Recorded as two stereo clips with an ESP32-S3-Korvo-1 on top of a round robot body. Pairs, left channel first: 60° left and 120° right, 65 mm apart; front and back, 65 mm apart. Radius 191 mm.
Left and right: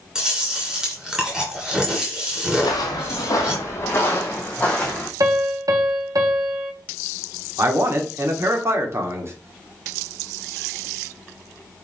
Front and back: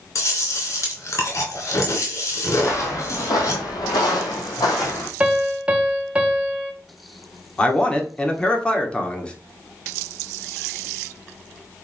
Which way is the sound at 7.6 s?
75° right.